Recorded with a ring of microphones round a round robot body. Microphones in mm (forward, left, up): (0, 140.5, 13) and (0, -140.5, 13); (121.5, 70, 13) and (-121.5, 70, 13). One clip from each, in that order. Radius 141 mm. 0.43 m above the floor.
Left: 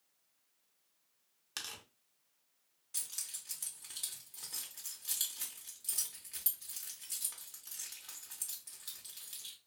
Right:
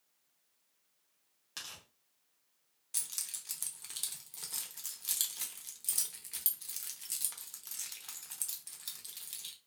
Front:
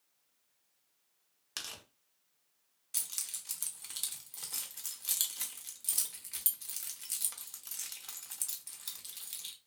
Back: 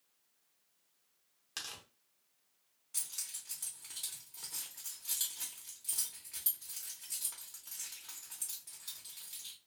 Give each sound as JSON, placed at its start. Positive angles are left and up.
{"t": 1.6, "sound": "tearing paper", "azimuth_deg": 45, "distance_m": 0.7}
{"t": 2.9, "sound": "keys jangling", "azimuth_deg": -25, "distance_m": 0.6}